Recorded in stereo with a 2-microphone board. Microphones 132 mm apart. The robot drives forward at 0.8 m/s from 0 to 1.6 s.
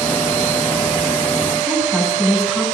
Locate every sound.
1.7 s a woman speaking: centre (ahead or behind), 7.5 m